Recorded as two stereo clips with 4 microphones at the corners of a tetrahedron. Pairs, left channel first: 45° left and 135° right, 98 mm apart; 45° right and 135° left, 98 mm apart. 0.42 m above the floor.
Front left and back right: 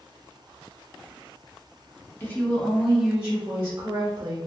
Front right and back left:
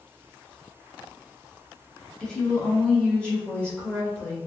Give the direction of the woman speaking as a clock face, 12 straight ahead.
11 o'clock.